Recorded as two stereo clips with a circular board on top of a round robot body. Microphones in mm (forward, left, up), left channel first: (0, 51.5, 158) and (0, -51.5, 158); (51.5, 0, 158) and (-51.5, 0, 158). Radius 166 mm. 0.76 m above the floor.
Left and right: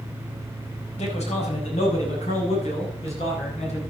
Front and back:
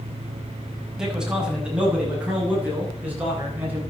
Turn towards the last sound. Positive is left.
turn(degrees=105)